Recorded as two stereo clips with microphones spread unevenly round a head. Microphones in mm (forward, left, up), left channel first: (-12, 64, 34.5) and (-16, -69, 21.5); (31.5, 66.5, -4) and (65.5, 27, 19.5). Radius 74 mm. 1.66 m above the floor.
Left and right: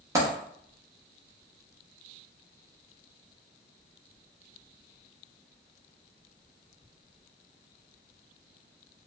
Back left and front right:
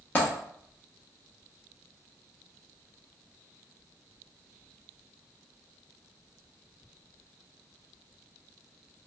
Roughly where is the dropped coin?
Behind right.